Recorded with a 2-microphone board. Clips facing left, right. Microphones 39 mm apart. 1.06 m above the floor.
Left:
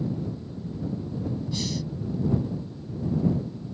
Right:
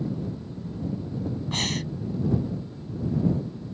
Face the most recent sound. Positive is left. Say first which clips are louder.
# right 2 dB
turn(degrees=-50)  # may be behind; listen again after turning